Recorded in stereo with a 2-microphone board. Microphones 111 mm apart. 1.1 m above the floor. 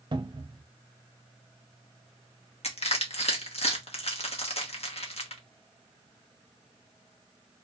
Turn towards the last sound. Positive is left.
turn(degrees=65)  # may be behind; listen again after turning